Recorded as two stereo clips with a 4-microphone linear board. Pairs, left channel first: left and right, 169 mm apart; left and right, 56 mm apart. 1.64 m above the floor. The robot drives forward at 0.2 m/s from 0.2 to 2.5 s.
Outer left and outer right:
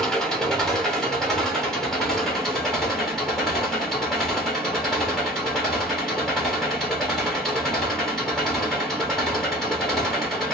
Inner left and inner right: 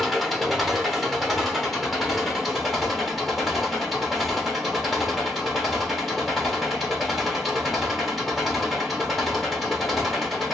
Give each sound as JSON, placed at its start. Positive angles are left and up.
{"t": 0.0, "sound": "an engine running", "side_deg": 5, "distance_m": 1.0}